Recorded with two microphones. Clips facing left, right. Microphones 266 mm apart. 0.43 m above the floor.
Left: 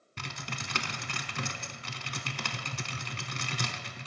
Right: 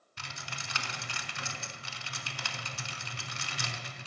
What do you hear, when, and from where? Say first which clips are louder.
0.2 s typing on a keyboard: left 7 dB; 65° left (ahead or behind), 0.6 m